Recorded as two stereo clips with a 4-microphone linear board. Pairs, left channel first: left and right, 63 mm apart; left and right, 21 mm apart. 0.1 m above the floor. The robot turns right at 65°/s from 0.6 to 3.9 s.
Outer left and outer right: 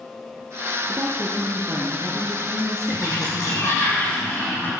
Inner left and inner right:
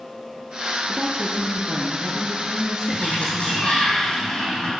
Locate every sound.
0.9 s a woman speaking: 65° right, 2 m; by 3.9 s 130° left, 2 m
2.9 s a sliding door: 85° left, 5 m; by 4.7 s 150° left, 5 m